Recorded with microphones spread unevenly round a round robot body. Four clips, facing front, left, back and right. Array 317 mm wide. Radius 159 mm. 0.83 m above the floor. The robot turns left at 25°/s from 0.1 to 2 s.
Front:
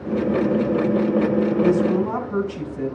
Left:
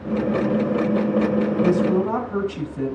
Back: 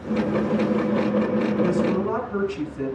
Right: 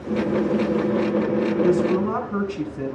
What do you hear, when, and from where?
1.6 s a woman speaking: 85° left, 5 m; by 3.0 s 75° left, 5 m